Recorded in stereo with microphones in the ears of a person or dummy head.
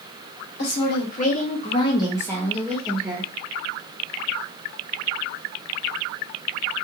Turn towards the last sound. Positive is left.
turn(degrees=0)  # may be behind; listen again after turning